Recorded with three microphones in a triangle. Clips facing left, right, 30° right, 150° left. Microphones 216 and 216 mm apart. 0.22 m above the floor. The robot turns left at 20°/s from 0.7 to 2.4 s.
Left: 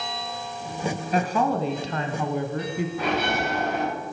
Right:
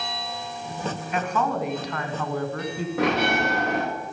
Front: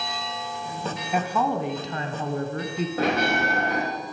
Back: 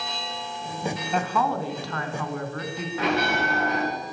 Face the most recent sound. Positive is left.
turn(degrees=-80)